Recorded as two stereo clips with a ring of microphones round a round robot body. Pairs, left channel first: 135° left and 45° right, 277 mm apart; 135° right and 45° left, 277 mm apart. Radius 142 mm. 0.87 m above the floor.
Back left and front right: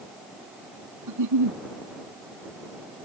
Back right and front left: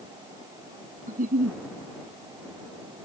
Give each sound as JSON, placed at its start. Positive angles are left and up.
{"t": 1.1, "sound": "a giggle", "azimuth_deg": -20}